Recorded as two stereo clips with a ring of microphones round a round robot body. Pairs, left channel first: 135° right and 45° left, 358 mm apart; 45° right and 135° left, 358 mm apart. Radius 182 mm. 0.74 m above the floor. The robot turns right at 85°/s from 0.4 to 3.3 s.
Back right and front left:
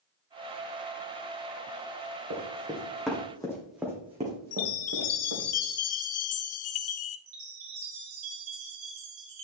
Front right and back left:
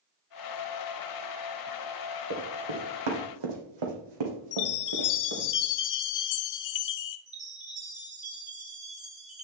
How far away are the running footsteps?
About 2.5 m.